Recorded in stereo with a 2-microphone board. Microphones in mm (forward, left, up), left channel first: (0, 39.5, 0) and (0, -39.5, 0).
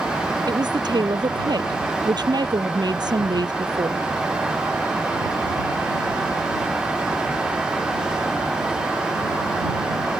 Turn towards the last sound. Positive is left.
turn(degrees=-65)  # may be behind; listen again after turning